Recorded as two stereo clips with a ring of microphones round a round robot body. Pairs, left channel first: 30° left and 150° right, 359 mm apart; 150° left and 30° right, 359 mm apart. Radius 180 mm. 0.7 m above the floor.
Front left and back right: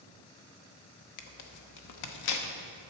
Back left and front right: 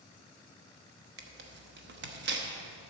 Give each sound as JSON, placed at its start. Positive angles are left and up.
{"t": 1.2, "sound": "tearing paper", "azimuth_deg": 20, "distance_m": 0.9}